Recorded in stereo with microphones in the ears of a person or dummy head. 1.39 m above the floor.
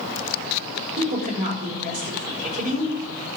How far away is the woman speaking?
About 6 m.